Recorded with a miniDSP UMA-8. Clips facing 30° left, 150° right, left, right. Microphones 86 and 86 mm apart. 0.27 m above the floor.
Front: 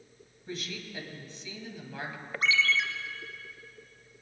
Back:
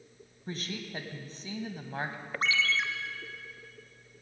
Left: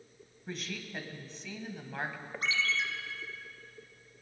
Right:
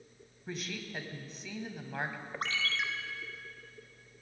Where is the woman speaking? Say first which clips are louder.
Back 1 dB, even; 175° right, 1.4 m.